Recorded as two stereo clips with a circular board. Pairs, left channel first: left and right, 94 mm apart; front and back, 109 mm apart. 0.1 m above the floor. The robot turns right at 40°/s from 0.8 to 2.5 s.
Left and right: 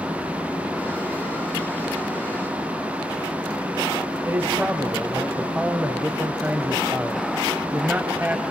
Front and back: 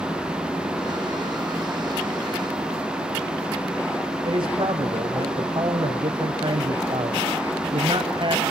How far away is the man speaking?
About 2 m.